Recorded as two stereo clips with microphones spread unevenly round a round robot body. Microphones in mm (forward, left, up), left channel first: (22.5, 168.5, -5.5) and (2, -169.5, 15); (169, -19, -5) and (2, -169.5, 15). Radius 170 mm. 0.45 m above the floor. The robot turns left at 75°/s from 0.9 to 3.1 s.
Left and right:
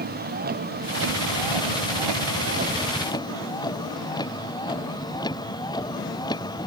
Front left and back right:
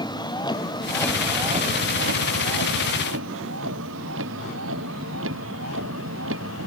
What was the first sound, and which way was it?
A vehicle, 30° right.